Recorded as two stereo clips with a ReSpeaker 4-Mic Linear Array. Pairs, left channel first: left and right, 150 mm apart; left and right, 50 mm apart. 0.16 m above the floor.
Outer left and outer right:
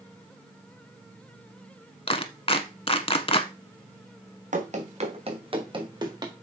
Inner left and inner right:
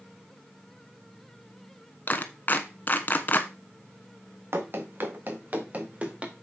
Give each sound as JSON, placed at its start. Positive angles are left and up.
{"t": 2.1, "sound": "a clap", "side_deg": 40, "distance_m": 1.0}
{"t": 4.5, "sound": "running footsteps", "side_deg": -60, "distance_m": 2.0}